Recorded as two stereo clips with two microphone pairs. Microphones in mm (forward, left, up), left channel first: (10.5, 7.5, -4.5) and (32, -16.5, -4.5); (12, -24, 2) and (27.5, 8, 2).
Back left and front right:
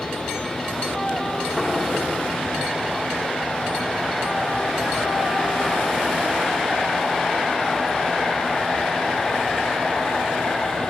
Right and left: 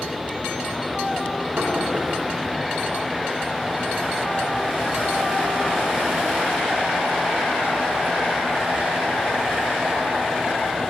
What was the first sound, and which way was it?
Knocking, 60° left.